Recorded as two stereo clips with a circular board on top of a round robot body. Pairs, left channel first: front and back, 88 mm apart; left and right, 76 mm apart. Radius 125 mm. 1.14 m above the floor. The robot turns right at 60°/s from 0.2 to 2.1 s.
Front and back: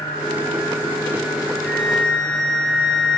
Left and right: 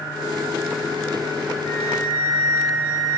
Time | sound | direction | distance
1.6 | a flute | 80° left | 2.5 m